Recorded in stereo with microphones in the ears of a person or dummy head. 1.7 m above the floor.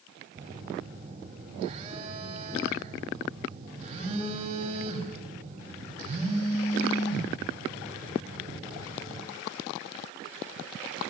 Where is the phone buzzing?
25° right (ahead or behind), 4 m.